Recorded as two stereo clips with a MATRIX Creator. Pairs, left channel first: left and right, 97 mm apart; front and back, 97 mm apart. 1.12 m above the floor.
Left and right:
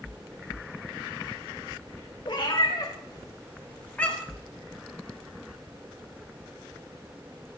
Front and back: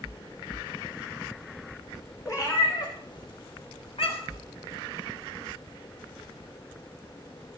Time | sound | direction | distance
2.2 | a cat meowing | 55° left | 2.5 m